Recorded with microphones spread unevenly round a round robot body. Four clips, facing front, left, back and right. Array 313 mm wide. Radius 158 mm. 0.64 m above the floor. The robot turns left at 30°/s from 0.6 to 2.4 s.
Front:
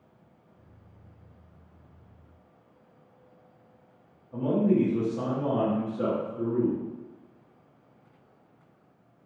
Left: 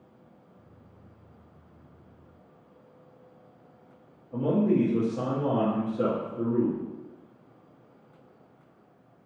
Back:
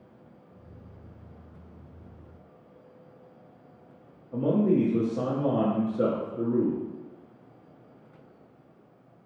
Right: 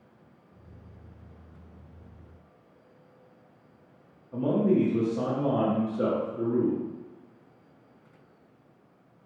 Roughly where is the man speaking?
Behind.